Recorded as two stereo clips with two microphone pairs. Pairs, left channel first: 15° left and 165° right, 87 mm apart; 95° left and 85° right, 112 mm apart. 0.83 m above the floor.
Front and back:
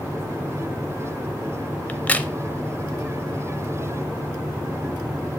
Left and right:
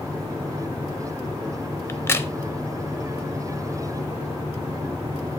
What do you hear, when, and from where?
1.9 s a crack: 70° left, 0.6 m